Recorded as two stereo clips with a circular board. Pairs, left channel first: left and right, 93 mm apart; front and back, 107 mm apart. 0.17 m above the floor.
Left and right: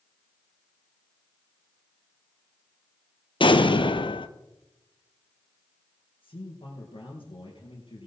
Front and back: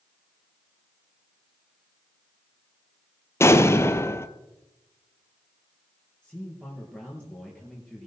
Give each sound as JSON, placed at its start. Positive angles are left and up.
{"t": 3.4, "sound": "an explosion", "azimuth_deg": 65, "distance_m": 0.8}
{"t": 6.2, "sound": "a man speaking", "azimuth_deg": 80, "distance_m": 3.5}